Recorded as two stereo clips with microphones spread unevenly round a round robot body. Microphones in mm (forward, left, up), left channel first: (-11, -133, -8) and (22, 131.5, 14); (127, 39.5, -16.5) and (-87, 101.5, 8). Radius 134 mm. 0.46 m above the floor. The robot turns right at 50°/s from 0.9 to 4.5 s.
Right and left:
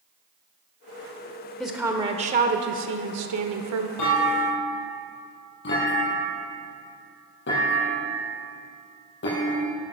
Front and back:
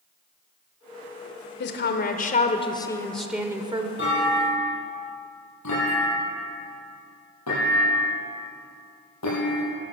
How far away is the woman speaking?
About 1.1 m.